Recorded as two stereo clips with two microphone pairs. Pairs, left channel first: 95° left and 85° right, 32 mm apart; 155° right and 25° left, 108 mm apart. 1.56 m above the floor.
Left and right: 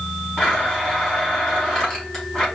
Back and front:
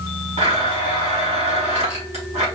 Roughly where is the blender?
Ahead left.